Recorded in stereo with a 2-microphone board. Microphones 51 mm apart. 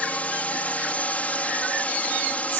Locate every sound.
0.0 s a drone: 30° left (ahead or behind)